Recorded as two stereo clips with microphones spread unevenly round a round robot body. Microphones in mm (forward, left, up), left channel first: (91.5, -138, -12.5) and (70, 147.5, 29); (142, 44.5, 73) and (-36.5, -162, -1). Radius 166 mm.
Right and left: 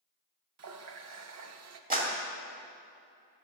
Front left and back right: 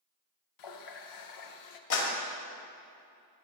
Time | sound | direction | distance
0.6 | a running tap | 60° left | 0.9 m
1.9 | a clap | 30° left | 2.5 m